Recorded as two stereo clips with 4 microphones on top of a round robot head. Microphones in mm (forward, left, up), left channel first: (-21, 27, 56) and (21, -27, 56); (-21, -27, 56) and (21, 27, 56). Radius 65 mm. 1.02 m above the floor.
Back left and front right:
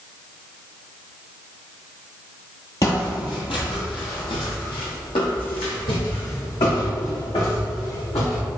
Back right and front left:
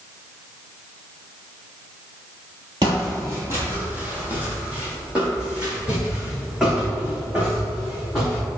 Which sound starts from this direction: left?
Footsteps, at 2.8 s.